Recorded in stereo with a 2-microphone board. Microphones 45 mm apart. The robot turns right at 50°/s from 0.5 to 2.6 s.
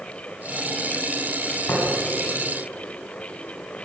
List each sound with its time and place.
1.7 s tapping: 80° left, 8 m; by 1.8 s 85° left, 8 m